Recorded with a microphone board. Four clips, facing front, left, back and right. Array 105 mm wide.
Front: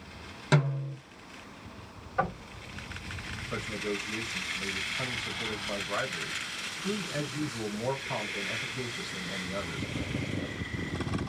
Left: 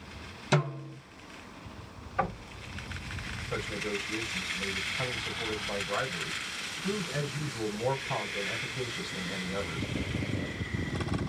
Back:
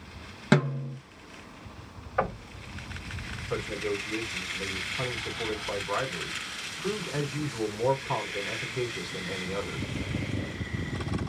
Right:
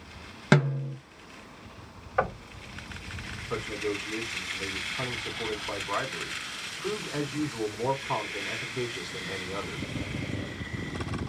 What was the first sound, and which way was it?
A snare drum, 110° right.